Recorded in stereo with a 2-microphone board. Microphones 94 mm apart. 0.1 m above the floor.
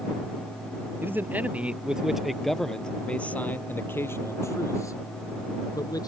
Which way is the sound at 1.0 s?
25° right (ahead or behind).